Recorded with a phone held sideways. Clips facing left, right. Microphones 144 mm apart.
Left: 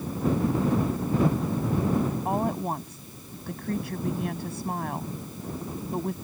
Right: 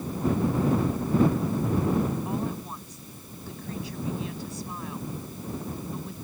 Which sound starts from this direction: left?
A woman speaking, at 2.2 s.